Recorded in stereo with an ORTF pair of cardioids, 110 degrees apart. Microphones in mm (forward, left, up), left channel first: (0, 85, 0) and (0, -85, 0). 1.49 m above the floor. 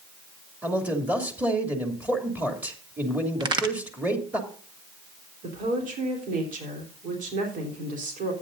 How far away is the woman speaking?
About 3.5 m.